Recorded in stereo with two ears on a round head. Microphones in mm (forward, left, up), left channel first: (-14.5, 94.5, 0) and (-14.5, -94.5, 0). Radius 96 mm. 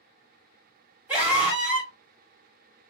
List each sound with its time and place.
1.1 s a scream: 10° right (ahead or behind), 1.4 m